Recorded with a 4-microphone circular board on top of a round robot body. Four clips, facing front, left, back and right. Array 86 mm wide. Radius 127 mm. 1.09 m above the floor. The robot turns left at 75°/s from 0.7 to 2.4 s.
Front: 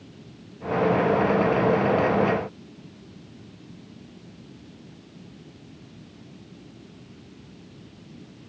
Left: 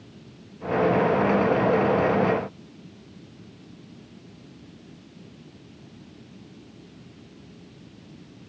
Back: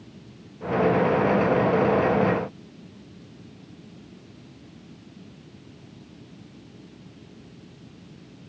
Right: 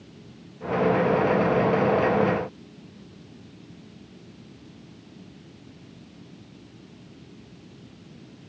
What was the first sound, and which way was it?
Only background noise.